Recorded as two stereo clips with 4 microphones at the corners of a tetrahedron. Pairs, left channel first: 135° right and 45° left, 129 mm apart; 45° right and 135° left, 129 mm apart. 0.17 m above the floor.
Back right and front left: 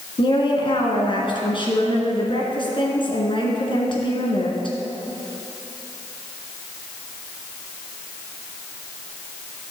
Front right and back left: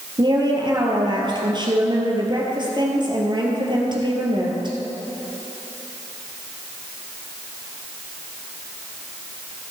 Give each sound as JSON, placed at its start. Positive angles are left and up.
{"t": 0.2, "sound": "a woman speaking", "azimuth_deg": 180, "distance_m": 2.5}